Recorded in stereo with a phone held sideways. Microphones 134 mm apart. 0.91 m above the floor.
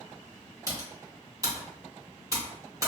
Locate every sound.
0.7 s typing on a keyboard: 25° right (ahead or behind), 1.0 m